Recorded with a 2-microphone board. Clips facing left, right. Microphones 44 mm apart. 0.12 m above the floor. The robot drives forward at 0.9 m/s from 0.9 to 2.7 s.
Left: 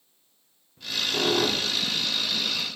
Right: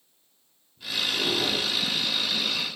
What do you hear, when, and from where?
0.8 s a squeak: 60° left (ahead or behind), 1.7 m; by 1.9 s 90° left, 1.5 m